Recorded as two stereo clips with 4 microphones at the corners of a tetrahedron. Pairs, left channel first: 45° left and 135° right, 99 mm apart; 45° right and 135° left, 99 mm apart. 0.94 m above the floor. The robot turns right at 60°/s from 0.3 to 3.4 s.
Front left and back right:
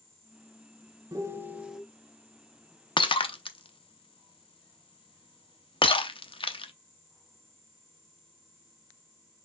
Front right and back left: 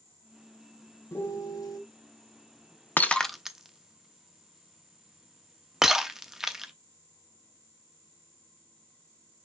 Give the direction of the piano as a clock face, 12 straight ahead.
3 o'clock.